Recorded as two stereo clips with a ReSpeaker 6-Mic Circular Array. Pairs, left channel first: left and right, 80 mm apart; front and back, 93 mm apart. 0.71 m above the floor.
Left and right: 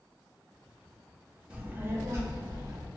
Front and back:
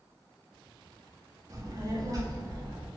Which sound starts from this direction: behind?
A child speaking, at 1.5 s.